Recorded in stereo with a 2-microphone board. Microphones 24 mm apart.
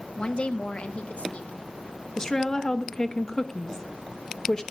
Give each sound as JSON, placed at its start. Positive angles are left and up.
{"t": 0.2, "sound": "a woman speaking", "side_deg": 45, "distance_m": 0.9}
{"t": 2.2, "sound": "a woman speaking", "side_deg": 25, "distance_m": 1.2}